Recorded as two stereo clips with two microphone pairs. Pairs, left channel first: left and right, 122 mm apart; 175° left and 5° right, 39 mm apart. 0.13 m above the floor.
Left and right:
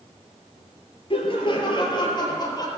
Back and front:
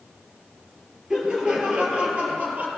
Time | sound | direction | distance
1.1 | laughter | 60° left | 3.5 m